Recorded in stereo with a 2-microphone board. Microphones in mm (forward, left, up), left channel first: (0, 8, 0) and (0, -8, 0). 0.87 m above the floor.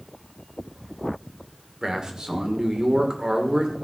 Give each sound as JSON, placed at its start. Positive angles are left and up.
{"t": 1.8, "sound": "a man speaking", "side_deg": -45, "distance_m": 2.5}